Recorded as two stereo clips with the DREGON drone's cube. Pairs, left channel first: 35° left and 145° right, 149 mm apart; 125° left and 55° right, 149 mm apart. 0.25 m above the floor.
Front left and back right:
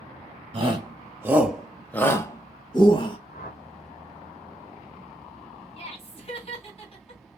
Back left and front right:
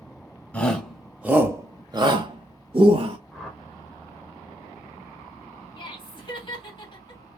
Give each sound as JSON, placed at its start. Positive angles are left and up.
{"t": 0.5, "sound": "a shout", "azimuth_deg": -160, "distance_m": 1.1}
{"t": 3.3, "sound": "a whoosh", "azimuth_deg": 35, "distance_m": 1.4}
{"t": 5.8, "sound": "laughter", "azimuth_deg": 75, "distance_m": 2.5}